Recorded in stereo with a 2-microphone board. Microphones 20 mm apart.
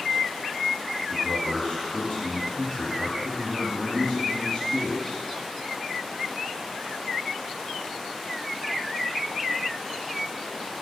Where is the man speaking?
45° left (ahead or behind), 2.0 m.